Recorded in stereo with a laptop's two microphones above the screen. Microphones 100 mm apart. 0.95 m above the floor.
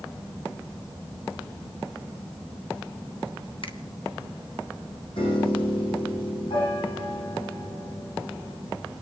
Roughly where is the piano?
Left.